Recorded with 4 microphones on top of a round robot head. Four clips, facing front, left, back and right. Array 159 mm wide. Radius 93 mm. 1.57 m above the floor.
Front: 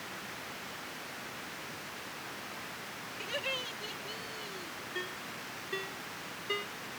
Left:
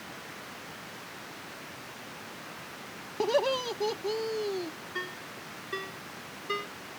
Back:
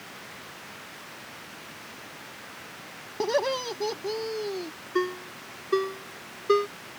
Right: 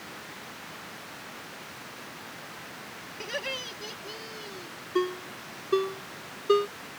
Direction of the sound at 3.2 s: 140° left.